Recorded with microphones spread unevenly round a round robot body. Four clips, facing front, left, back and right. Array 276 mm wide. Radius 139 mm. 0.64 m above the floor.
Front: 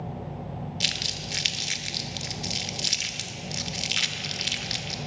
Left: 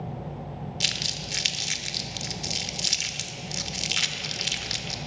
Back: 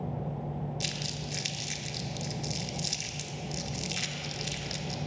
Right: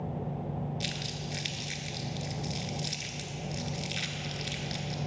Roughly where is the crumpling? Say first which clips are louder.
Left 1 dB, front 1 dB; ahead left.